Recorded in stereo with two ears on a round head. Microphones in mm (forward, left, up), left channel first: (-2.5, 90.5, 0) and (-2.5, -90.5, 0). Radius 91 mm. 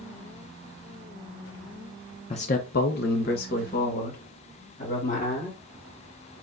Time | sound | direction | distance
2.3 | a man speaking | 30° left (ahead or behind) | 0.6 m